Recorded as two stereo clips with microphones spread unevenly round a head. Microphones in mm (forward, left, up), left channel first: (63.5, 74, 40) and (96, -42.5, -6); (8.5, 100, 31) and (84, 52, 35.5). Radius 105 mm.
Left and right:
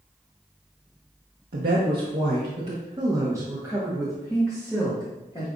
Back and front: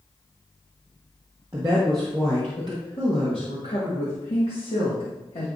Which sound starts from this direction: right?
A woman speaking, at 1.5 s.